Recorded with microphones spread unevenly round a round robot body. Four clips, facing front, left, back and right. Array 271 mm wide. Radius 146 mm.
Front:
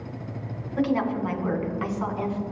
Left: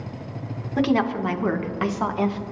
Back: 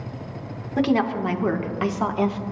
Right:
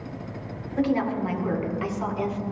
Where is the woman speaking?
135° left, 2 m; by 2.4 s 150° left, 1.4 m.